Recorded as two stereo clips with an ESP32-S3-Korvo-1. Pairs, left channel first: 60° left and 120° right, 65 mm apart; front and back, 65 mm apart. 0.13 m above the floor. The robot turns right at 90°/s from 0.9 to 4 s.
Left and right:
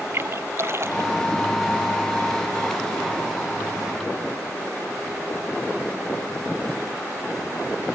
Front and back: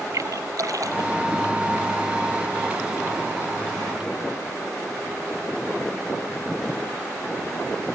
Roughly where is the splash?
Behind.